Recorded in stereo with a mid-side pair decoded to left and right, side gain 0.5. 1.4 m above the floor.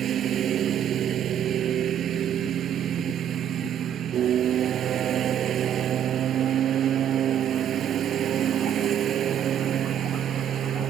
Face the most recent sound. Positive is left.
turn(degrees=-55)